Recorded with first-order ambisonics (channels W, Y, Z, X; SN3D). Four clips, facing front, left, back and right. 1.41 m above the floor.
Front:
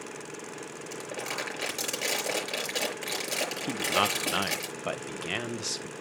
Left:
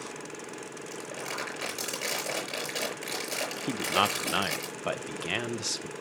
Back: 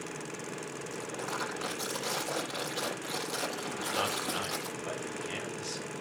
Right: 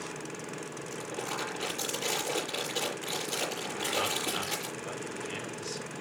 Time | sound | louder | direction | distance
0.9 | crumpling | even, front 3 dB | 25° left | 6 m
3.7 | a man speaking | left 7 dB, front 7 dB | 55° left | 1.0 m